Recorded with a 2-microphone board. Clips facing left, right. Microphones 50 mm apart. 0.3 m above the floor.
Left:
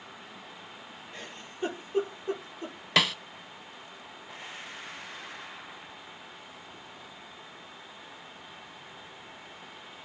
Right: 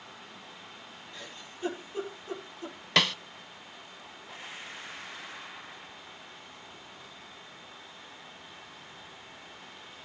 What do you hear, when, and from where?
1.1 s a giggle: 35° left (ahead or behind), 4.5 m
3.0 s a snare drum: centre (ahead or behind), 0.6 m